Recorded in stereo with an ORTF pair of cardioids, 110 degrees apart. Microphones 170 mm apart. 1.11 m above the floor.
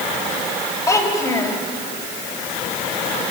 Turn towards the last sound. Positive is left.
turn(degrees=20)